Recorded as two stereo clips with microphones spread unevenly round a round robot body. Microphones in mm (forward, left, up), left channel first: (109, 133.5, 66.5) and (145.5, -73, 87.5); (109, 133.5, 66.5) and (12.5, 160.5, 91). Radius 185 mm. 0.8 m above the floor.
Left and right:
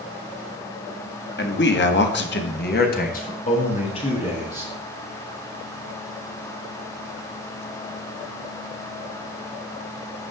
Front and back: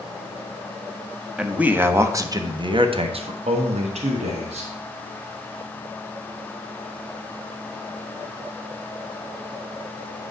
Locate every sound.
1.4 s a man speaking: 75° left, 1.7 m; by 4.7 s 175° left, 2 m